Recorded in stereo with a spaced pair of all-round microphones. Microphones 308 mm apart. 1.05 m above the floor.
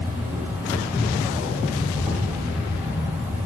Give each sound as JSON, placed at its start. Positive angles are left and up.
{"t": 0.0, "sound": "an insect", "side_deg": -5, "distance_m": 3.0}